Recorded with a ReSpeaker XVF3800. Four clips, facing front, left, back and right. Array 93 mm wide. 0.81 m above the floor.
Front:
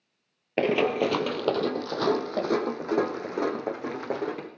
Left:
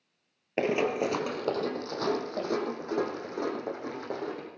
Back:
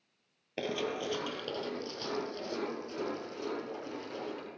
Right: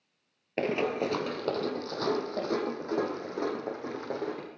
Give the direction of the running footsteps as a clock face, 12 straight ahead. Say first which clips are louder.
Left 2 dB, front 12 dB; 11 o'clock.